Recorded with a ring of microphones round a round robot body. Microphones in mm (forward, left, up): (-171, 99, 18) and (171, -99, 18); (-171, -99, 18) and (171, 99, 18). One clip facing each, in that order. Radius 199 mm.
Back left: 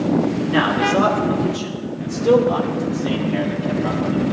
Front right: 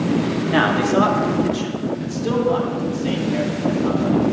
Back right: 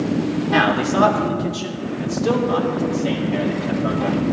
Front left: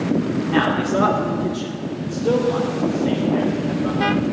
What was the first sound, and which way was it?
A man speaking, 80° right.